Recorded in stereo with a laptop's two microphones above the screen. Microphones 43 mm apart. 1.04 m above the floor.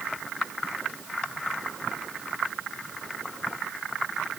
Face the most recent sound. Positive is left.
No sound to turn to.